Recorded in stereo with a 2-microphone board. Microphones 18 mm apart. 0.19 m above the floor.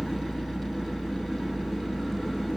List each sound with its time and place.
0.0 s an engine running: 20° right (ahead or behind), 1.7 m